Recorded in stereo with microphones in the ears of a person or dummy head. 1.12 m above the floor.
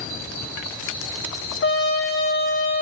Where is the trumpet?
60° left (ahead or behind), 1.0 m.